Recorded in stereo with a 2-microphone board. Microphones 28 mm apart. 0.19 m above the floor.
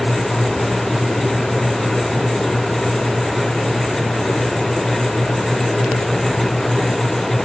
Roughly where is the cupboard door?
No cupboard door in this recording.